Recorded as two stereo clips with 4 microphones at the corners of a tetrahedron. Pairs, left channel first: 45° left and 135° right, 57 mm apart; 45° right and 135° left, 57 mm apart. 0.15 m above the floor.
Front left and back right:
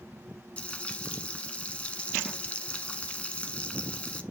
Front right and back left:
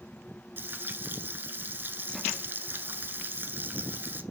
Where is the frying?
105° left, 0.9 m.